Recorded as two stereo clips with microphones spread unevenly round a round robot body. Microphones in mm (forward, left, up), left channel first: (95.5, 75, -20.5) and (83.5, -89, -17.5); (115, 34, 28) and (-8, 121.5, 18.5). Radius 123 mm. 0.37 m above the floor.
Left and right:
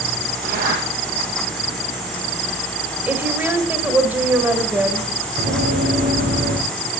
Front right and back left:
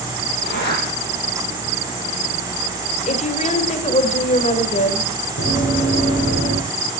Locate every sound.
0.4 s a zipper: 60° right, 6.5 m
3.1 s a woman speaking: 20° right, 1.9 m
5.4 s running footsteps: 55° right, 4 m; by 6.6 s 80° right, 4 m